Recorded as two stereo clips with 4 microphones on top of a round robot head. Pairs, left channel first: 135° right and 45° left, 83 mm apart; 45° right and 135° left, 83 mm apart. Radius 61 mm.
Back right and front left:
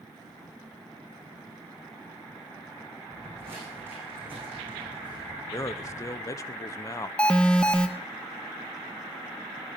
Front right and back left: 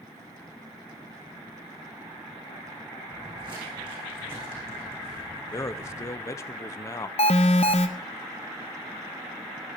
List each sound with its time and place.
3.1 s footsteps: 110° left, 4 m; by 6.2 s 125° left, 5 m
5.5 s a man speaking: 90° right, 0.8 m
7.2 s an alarm: 60° right, 0.6 m